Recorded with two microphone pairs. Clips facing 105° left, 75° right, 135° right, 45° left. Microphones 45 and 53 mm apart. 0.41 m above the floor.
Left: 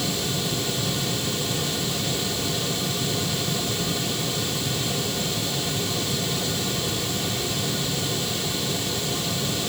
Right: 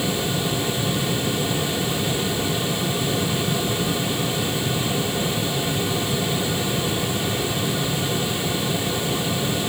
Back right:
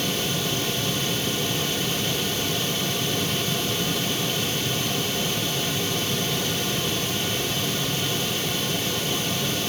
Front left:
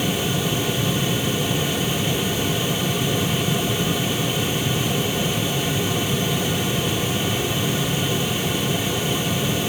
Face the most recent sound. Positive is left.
No sound to turn to.